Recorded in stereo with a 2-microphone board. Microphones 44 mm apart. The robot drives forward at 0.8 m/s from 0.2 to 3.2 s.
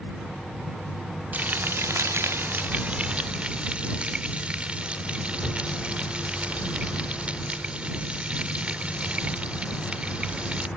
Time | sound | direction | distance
1.3 | frying | 40° right (ahead or behind) | ?